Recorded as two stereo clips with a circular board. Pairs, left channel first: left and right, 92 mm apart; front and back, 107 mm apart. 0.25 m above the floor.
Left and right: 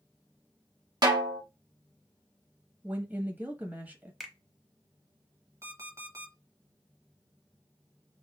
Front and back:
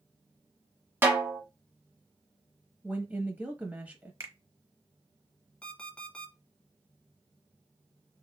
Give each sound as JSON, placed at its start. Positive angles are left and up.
{"t": 1.0, "sound": "a snare drum", "azimuth_deg": -115, "distance_m": 0.9}
{"t": 2.8, "sound": "a woman speaking", "azimuth_deg": -130, "distance_m": 1.1}
{"t": 4.2, "sound": "a finger snap", "azimuth_deg": 180, "distance_m": 0.9}
{"t": 5.6, "sound": "an alarm clock", "azimuth_deg": -75, "distance_m": 0.9}